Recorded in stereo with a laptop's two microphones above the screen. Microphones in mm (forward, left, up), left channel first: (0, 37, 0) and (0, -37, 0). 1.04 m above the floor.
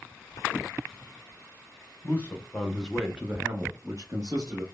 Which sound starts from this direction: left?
A man speaking, at 2.0 s.